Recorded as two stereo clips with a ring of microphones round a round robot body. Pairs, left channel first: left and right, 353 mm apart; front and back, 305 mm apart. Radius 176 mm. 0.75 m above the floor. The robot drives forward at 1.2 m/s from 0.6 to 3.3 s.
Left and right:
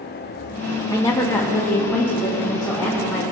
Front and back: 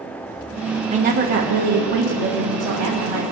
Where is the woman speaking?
155° left, 1.1 m; by 3.2 s 175° left, 3.5 m.